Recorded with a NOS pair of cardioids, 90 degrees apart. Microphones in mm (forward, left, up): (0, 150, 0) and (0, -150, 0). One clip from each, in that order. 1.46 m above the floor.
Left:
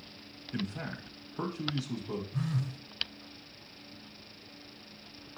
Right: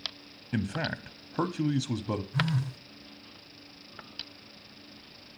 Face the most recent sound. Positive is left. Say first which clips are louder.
# right 8 dB
turn(degrees=-20)